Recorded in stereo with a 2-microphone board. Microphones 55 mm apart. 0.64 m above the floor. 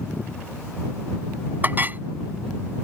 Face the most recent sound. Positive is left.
turn(degrees=-35)  # may be behind; listen again after turning